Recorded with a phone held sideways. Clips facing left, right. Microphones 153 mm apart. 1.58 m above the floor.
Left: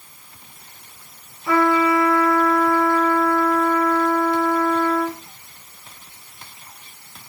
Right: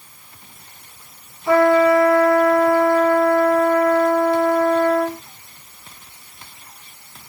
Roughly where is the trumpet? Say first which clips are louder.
Right 5 dB; right.